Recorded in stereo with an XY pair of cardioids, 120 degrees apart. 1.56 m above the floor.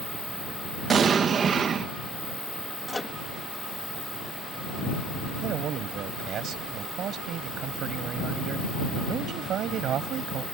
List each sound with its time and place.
0.9 s an explosion: 40° right
2.9 s a microwave: 10° left
5.4 s a man speaking: 55° right